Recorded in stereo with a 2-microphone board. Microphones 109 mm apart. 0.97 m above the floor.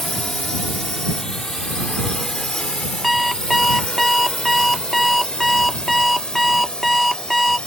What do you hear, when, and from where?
0.0 s a drone: 5° left (ahead or behind); by 7.7 s 10° left (ahead or behind)
3.0 s an alarm clock: centre (ahead or behind)